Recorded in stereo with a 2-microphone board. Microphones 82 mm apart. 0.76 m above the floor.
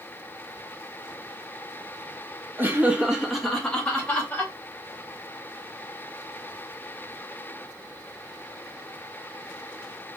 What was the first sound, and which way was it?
Laughter, 25° right (ahead or behind).